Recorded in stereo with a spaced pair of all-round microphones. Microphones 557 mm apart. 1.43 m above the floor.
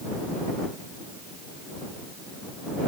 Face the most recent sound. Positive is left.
No sound to turn to.